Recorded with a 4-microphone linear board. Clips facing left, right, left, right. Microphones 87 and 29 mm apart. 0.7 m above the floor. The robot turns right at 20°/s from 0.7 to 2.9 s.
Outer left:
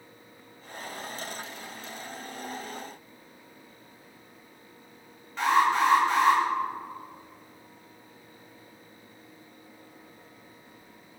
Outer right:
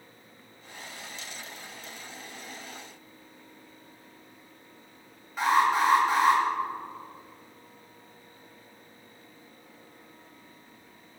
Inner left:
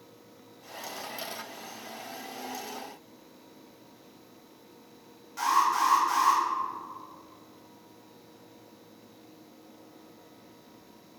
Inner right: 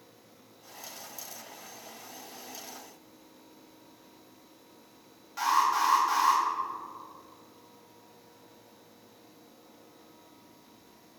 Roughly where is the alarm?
Centre.